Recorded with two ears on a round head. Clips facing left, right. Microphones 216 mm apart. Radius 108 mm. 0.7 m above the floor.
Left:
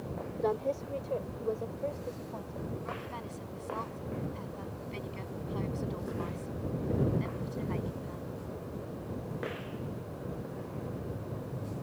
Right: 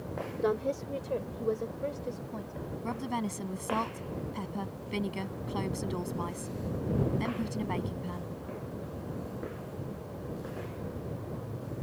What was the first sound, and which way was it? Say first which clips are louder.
A woman speaking: right 1 dB; 20° right (ahead or behind).